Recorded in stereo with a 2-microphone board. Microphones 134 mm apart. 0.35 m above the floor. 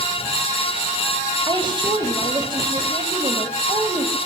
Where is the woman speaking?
35° right (ahead or behind), 2 m.